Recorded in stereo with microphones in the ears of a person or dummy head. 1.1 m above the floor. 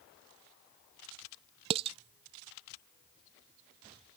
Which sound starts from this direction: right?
Dishes clattering, at 1.7 s.